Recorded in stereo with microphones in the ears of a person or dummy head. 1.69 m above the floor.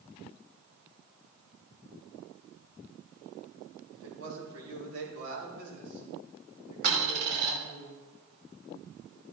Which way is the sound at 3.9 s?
70° right (ahead or behind).